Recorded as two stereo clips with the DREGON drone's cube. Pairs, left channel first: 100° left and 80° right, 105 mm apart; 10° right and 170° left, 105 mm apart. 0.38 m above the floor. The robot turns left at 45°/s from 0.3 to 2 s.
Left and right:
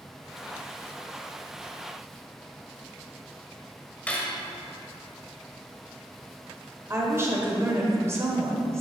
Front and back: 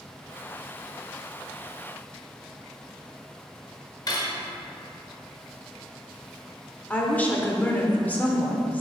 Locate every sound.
4.1 s cutlery clinking: 25° left, 0.9 m
6.9 s a woman speaking: 70° right, 0.9 m